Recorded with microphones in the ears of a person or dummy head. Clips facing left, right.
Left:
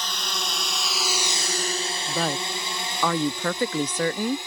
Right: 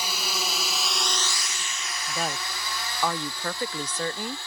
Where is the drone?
10° right (ahead or behind); by 4.5 s 15° left (ahead or behind).